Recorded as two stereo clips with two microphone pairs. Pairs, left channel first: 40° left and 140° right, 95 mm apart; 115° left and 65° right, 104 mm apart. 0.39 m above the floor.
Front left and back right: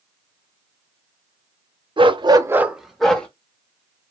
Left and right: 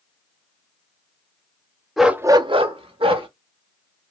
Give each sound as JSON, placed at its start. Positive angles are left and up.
{"t": 2.0, "sound": "a dog barking", "azimuth_deg": -155, "distance_m": 0.6}